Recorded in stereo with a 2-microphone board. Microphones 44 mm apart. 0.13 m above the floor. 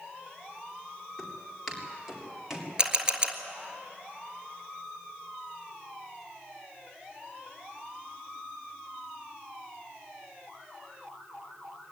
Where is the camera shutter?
20° right (ahead or behind), 1.6 m.